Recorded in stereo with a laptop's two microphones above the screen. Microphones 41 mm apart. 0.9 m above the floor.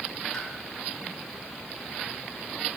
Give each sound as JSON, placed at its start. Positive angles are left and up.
{"t": 0.3, "sound": "a pop", "side_deg": 15, "distance_m": 4.5}